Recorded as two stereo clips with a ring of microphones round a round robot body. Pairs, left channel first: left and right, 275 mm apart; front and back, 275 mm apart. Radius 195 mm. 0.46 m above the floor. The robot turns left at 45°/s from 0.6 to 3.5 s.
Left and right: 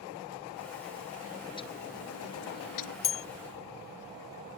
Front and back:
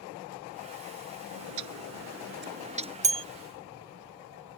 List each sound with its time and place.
1.3 s a bird: straight behind; by 2.9 s 105° left
3.0 s a bell: 120° left; by 3.2 s 110° left